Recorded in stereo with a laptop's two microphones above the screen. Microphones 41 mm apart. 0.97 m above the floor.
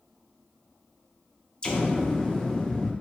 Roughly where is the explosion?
Left.